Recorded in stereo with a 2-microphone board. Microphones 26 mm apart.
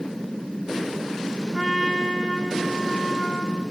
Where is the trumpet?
5° left (ahead or behind), 1.2 m.